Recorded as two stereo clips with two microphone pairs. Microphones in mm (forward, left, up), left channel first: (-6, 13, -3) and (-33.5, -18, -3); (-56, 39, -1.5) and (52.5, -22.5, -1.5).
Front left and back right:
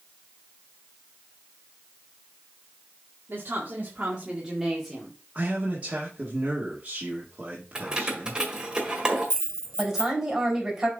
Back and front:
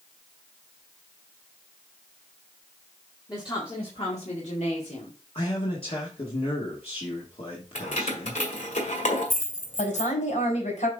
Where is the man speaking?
Straight behind, 1.6 m.